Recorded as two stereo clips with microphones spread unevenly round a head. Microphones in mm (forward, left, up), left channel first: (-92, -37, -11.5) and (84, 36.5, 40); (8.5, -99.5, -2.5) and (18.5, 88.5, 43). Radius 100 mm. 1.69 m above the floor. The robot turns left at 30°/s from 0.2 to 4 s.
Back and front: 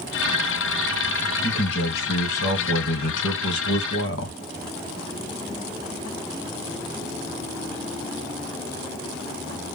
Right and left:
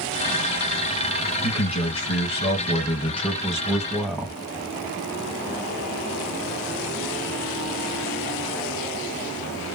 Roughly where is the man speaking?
Right.